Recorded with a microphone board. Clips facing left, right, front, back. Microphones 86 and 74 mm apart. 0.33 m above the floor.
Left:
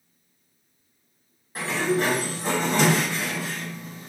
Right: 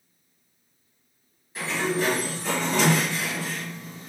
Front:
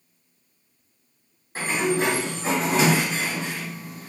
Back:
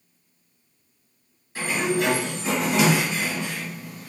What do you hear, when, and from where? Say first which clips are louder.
1.6 s a sliding door: left 2 dB, front 1 dB; 50° left, 1.2 m